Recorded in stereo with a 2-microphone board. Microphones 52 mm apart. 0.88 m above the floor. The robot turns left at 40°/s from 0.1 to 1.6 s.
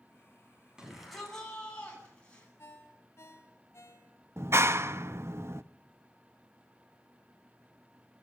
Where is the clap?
50° right (ahead or behind), 0.7 m.